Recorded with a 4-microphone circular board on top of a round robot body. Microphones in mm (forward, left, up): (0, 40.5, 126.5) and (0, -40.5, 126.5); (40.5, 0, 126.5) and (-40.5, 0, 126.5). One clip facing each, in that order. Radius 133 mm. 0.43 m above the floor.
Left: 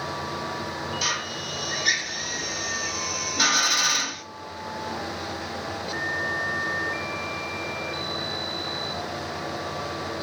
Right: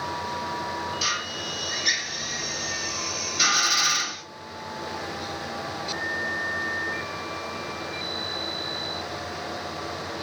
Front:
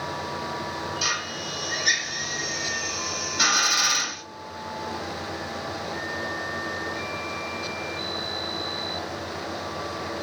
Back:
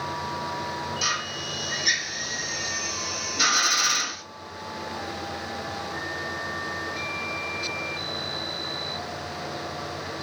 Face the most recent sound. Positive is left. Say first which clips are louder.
# even, even
turn(degrees=45)